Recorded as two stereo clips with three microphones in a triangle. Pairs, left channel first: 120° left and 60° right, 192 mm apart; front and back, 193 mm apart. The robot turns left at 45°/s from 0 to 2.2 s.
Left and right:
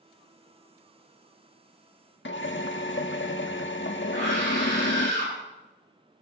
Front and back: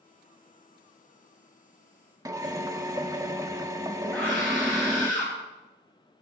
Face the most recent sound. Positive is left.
turn(degrees=-80)